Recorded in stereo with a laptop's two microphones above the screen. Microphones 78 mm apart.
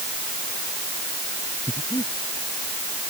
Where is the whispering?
No whispering in this recording.